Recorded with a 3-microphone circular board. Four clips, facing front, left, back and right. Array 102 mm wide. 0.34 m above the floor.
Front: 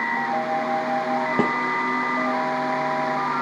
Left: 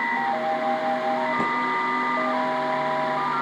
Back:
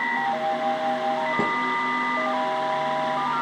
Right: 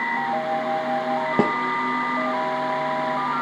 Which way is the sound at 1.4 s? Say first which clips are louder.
Right 4 dB, front 3 dB; 65° right.